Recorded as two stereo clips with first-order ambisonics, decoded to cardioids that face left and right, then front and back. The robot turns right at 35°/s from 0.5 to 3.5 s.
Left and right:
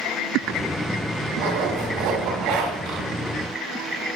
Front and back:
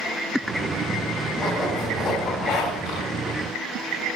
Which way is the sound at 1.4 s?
100° right.